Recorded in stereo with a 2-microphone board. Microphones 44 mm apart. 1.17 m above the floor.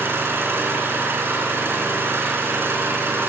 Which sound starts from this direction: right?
An engine running, at 0.0 s.